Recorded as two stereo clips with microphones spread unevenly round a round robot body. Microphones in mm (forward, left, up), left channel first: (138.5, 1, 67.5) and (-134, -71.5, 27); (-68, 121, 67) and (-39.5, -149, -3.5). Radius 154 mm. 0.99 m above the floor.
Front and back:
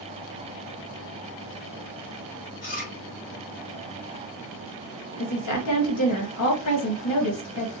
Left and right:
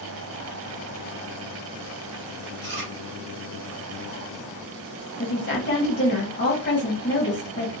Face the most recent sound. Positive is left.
turn(degrees=40)